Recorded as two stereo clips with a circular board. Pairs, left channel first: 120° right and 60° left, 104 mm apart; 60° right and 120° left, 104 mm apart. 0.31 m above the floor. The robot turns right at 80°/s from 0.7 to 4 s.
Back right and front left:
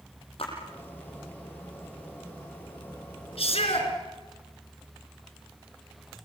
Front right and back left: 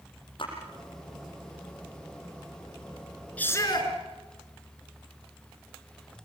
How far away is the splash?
About 7.5 m.